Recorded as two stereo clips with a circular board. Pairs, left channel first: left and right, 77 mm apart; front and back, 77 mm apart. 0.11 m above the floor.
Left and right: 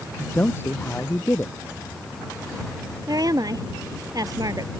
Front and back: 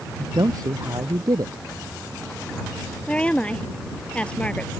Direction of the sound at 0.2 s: 150° left.